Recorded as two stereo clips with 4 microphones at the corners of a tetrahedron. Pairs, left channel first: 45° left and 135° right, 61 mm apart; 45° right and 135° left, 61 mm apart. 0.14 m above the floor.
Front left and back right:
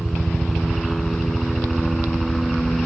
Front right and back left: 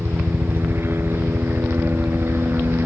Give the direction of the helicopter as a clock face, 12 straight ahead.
8 o'clock.